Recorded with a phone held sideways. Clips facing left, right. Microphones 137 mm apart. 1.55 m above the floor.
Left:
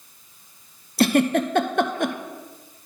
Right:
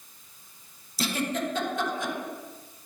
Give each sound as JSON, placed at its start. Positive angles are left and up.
{"t": 1.0, "sound": "a giggle", "side_deg": 70, "distance_m": 0.5}